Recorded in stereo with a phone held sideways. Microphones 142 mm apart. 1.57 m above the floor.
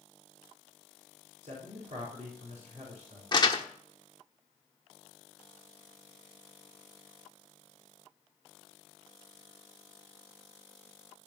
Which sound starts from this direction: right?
A man speaking, at 1.4 s.